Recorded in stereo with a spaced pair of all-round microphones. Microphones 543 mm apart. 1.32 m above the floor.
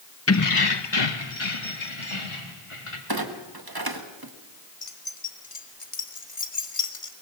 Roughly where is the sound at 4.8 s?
Left.